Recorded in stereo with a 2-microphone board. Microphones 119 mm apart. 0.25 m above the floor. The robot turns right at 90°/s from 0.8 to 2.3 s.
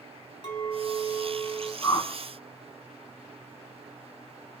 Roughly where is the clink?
Ahead left.